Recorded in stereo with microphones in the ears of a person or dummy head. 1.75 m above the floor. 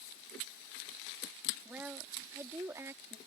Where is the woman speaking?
5° right (ahead or behind); by 3.2 s 15° right (ahead or behind).